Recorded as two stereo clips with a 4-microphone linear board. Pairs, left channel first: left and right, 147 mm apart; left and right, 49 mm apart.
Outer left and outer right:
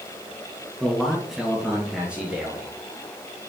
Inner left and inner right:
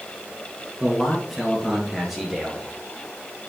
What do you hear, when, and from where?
0.8 s a man speaking: centre (ahead or behind), 2 m; by 2.7 s 10° right (ahead or behind), 3 m